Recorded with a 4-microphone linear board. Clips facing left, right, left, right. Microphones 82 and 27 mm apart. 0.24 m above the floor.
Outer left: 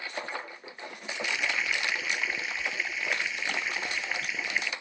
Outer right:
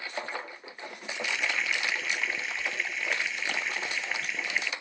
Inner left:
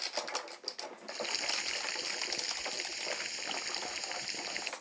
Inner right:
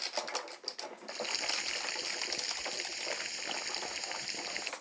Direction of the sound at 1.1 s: 5° left (ahead or behind).